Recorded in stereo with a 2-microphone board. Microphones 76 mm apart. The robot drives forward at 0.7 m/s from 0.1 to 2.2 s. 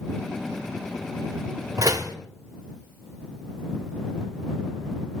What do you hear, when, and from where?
1.8 s a door slam: 55° right (ahead or behind), 0.9 m; by 2.1 s 60° right (ahead or behind), 0.9 m